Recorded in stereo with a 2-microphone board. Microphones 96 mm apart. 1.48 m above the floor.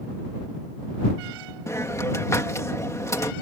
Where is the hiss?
30° left (ahead or behind).